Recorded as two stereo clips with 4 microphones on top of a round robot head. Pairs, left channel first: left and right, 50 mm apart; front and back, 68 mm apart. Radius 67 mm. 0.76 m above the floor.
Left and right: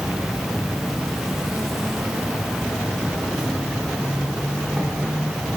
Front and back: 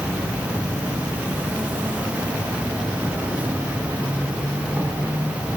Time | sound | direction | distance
0.0 | an insect | 160° right | 1.5 m